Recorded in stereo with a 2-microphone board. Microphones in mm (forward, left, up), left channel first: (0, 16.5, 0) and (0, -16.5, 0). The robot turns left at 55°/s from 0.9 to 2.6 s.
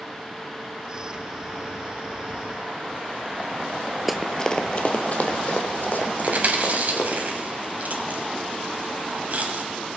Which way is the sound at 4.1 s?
5° right (ahead or behind).